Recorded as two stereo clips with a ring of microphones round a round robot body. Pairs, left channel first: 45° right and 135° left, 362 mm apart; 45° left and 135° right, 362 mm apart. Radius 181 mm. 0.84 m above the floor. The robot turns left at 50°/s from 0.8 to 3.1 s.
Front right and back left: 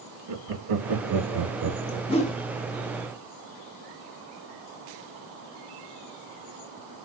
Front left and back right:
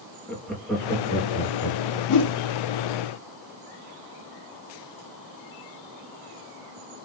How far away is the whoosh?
About 0.6 m.